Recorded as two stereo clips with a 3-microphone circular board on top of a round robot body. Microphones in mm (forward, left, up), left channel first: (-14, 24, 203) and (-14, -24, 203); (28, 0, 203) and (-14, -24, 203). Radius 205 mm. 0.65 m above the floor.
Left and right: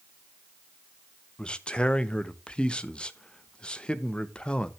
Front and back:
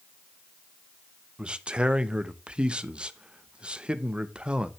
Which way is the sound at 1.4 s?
150° left.